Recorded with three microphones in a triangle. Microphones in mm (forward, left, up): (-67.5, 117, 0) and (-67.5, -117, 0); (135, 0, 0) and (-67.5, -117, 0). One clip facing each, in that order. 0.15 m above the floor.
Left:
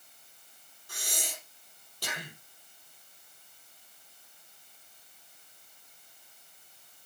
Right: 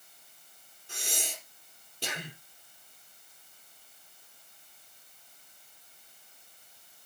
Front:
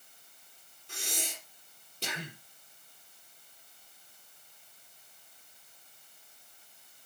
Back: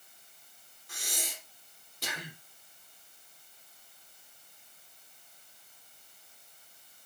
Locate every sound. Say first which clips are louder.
0.9 s breathing: right 2 dB, front 2 dB; 25° right, 3.5 m